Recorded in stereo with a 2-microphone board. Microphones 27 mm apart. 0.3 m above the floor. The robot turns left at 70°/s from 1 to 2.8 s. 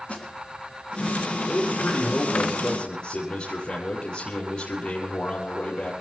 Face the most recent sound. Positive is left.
turn(degrees=35)